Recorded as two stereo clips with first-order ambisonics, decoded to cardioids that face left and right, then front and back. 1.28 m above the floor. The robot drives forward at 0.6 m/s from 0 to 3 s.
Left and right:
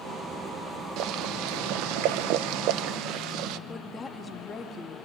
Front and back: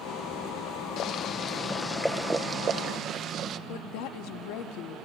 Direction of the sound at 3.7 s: 20° left.